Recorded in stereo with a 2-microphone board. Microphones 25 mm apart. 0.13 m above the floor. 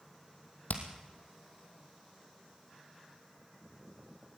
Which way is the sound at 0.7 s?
75° left (ahead or behind).